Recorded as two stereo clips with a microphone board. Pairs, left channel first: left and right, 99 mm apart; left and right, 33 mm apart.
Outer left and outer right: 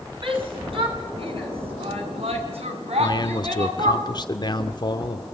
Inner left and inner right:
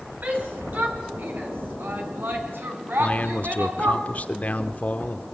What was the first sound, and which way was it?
A shout, 55° right (ahead or behind).